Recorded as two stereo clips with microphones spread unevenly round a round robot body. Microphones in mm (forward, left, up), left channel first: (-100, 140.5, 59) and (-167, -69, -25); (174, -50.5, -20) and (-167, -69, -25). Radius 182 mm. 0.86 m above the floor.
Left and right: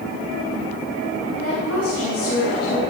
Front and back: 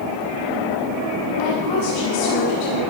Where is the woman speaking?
20° left, 7 m.